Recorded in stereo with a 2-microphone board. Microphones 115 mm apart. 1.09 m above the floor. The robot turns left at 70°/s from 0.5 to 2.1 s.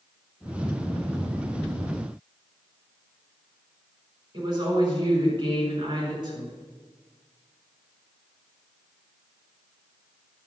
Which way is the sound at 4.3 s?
40° right (ahead or behind).